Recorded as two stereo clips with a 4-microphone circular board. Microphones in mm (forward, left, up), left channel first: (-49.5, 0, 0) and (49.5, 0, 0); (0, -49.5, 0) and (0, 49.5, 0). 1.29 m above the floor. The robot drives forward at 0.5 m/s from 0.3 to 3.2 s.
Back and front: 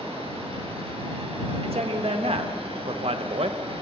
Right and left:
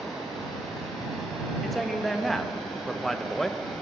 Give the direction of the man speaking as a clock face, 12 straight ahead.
12 o'clock.